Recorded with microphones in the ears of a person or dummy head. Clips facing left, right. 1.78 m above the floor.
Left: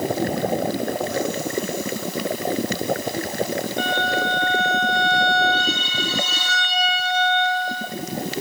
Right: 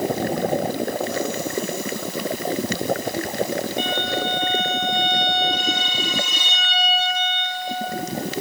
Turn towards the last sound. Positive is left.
turn(degrees=-15)  # may be behind; listen again after turning